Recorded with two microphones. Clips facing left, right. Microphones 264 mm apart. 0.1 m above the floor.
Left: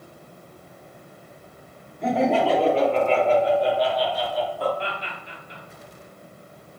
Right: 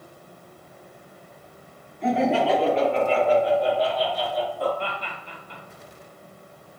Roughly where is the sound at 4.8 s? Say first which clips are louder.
Even; right.